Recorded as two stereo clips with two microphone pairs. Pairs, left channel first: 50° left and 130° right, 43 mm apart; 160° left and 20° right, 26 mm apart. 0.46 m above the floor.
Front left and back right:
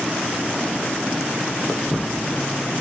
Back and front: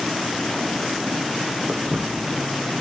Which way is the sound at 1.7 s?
15° right.